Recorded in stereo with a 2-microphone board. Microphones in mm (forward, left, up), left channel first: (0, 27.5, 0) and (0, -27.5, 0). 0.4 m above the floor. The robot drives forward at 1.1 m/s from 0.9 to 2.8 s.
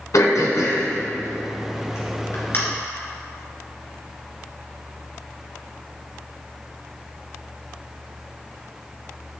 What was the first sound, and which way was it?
Throat clearing, 80° left.